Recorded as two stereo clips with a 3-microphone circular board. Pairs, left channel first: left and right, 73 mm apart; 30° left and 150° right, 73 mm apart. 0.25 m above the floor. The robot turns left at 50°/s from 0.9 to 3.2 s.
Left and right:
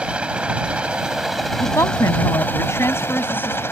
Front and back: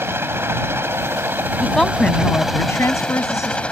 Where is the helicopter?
150° right; by 3.7 s 95° left.